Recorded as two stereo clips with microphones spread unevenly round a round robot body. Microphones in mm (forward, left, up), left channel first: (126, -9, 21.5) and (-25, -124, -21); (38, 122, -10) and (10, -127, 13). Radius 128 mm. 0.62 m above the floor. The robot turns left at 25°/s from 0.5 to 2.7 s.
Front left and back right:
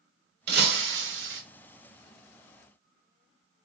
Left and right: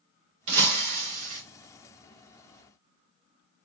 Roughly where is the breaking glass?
Right.